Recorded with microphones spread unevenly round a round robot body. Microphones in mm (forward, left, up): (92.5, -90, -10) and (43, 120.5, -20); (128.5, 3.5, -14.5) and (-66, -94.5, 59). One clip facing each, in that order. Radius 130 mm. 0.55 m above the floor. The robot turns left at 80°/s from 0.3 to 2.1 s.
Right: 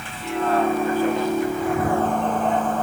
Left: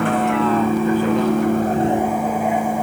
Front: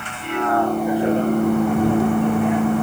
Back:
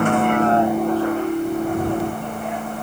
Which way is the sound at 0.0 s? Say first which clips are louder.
Left 8 dB, back 8 dB; 155° left.